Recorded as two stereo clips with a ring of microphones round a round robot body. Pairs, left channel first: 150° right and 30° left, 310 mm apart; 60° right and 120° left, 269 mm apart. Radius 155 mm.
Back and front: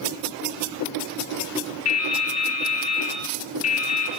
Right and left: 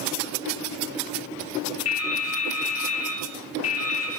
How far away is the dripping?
About 4.5 m.